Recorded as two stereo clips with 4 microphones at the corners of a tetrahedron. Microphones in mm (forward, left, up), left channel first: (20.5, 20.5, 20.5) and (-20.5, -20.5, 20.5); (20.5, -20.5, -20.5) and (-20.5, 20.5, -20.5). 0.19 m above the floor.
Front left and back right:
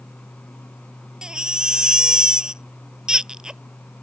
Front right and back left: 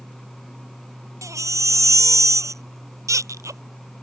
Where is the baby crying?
150° left.